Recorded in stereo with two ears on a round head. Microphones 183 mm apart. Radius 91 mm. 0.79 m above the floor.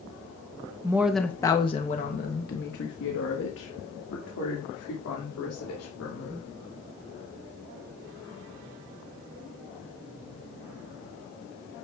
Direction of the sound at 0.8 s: 15° right (ahead or behind).